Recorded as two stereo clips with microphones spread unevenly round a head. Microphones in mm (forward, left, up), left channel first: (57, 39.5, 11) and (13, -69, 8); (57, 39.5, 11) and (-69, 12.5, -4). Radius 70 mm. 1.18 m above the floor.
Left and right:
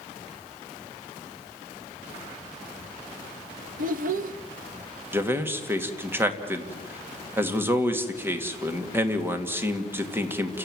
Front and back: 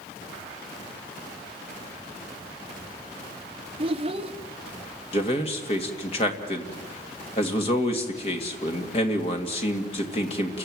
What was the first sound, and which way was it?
A child speaking, 110° right.